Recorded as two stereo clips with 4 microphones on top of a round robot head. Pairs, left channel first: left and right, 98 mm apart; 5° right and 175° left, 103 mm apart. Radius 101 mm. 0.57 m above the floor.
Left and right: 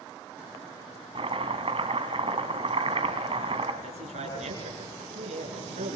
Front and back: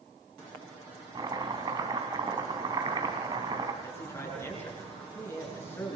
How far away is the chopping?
About 2.5 m.